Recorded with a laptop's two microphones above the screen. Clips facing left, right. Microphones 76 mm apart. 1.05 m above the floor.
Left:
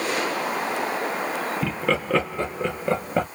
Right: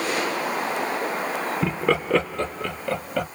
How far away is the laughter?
About 0.8 m.